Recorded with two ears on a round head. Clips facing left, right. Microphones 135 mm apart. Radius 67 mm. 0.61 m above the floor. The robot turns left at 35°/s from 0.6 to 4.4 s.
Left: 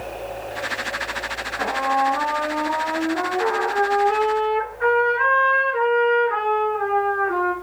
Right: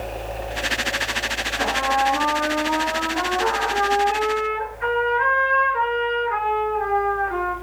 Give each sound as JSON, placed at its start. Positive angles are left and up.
{"t": 1.6, "sound": "a trumpet", "azimuth_deg": -150, "distance_m": 7.5}